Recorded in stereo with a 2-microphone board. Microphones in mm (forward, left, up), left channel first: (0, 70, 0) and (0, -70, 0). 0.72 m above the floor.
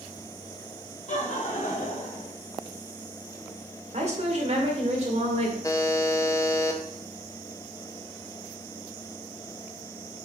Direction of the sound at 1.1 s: 60° left (ahead or behind).